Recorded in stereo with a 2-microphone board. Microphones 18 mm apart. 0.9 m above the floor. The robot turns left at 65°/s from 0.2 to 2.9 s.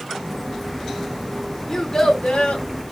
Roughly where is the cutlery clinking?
No cutlery clinking in this recording.